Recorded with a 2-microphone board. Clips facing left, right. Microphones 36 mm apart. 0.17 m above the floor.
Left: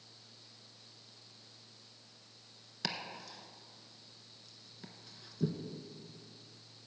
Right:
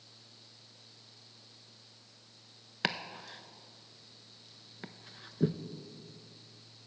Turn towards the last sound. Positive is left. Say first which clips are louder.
# right 6 dB
turn(degrees=-45)  # may be behind; listen again after turning